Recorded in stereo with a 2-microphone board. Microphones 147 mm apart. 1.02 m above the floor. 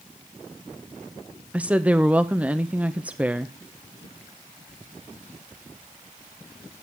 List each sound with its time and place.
1.5 s a woman speaking: 10° right (ahead or behind), 0.6 m